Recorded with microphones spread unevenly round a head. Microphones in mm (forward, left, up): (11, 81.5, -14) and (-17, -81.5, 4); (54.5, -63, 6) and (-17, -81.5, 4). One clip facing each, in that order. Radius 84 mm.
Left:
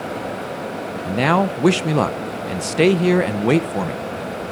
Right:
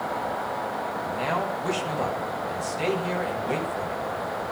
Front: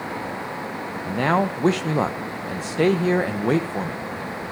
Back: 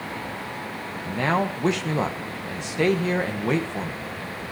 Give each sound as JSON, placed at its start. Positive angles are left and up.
{"t": 1.1, "sound": "a man speaking", "azimuth_deg": 85, "distance_m": 1.0}